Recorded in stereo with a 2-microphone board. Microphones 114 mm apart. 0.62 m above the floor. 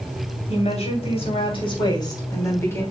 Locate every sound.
0.5 s a woman speaking: 70° left (ahead or behind), 3 m; by 2.8 s 20° left (ahead or behind), 3 m